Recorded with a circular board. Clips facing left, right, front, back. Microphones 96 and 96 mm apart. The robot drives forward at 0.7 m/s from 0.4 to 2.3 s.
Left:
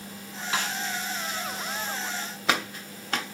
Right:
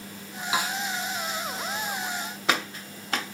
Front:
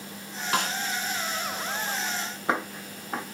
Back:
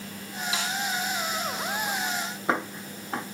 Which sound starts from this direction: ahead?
A snare drum, at 0.5 s.